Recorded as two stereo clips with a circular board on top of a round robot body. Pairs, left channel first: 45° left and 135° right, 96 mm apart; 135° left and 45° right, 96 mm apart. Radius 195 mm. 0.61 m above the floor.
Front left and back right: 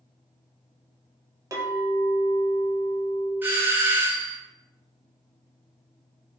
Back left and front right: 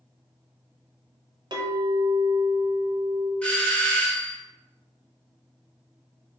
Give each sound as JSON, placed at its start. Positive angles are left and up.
{"t": 1.5, "sound": "a clink", "azimuth_deg": -80, "distance_m": 0.9}
{"t": 3.4, "sound": "a doorbell", "azimuth_deg": -165, "distance_m": 1.0}